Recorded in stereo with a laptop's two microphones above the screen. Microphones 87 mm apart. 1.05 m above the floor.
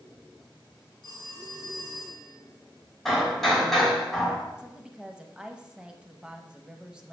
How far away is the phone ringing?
About 2.5 m.